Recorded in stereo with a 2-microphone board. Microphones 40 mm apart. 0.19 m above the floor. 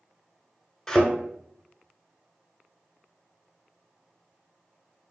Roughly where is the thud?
Centre.